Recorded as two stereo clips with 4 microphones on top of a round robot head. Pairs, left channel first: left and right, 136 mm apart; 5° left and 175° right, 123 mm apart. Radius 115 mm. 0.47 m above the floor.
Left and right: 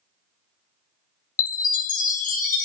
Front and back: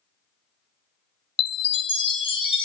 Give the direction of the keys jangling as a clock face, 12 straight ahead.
No keys jangling in this recording.